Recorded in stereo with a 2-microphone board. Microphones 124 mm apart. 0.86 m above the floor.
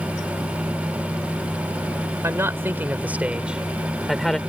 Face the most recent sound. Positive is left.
turn(degrees=0)  # may be behind; listen again after turning